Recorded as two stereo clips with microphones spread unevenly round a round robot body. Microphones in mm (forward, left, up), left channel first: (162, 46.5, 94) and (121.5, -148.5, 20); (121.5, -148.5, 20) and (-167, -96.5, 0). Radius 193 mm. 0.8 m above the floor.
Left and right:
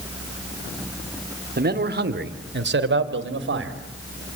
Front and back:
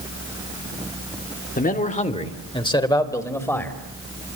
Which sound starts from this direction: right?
A man speaking, at 1.6 s.